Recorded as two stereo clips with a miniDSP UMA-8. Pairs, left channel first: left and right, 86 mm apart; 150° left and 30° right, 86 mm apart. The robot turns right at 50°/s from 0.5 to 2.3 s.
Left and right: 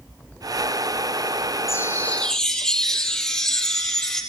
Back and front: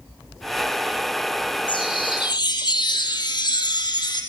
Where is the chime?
140° left, 3 m; by 4.2 s 170° left, 3 m.